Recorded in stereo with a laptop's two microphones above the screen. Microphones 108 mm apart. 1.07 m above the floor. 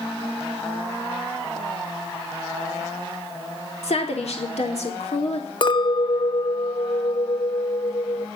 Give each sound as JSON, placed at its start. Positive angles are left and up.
{"t": 3.8, "sound": "a woman speaking", "side_deg": 80, "distance_m": 3.5}
{"t": 5.6, "sound": "a clink", "side_deg": 45, "distance_m": 0.8}